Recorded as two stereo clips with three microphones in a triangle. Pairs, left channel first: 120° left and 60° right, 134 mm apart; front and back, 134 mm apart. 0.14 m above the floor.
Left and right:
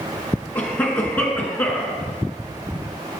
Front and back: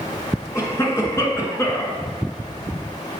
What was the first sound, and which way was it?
A cough, 50° left.